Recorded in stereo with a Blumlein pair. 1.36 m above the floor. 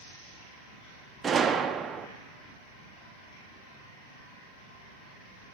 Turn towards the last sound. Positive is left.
turn(degrees=-15)